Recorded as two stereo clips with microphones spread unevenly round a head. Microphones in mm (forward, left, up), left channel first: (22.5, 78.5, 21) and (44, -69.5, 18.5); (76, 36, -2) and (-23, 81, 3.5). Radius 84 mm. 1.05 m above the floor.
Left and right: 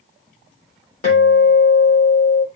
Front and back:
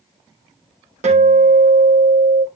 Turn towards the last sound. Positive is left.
turn(degrees=145)